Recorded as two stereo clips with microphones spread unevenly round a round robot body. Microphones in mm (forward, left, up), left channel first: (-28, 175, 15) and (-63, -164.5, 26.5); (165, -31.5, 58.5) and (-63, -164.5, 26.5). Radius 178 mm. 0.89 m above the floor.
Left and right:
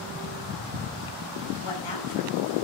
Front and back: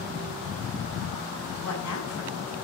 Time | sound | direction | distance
1.6 | a woman speaking | 75° left | 9 m